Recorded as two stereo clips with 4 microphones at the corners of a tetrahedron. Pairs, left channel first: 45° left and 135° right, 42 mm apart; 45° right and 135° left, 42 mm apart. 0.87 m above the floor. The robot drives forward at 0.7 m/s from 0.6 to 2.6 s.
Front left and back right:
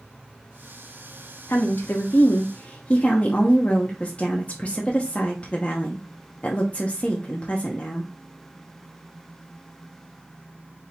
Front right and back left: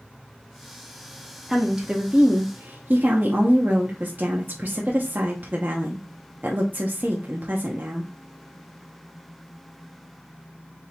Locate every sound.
1.5 s a woman speaking: 50° left, 1.1 m; by 8.1 s 95° left, 0.8 m